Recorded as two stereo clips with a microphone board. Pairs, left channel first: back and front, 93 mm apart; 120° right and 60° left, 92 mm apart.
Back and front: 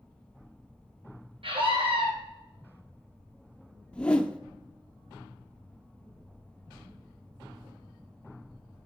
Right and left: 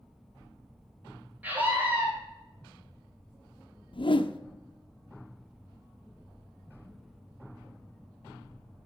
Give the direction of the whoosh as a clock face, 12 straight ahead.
3 o'clock.